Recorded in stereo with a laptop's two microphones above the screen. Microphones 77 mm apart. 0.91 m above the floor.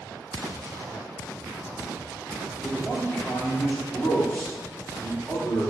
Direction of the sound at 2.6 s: 10° left (ahead or behind).